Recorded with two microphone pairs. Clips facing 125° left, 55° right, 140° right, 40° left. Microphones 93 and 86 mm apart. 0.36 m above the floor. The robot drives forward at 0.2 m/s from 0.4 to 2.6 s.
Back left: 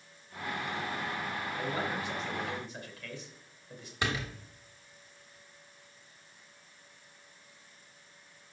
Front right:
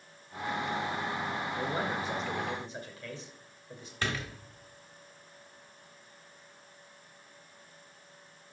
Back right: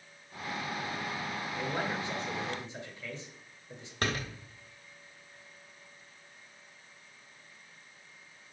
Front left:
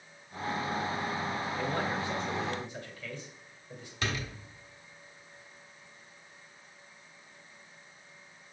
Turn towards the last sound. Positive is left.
turn(degrees=-160)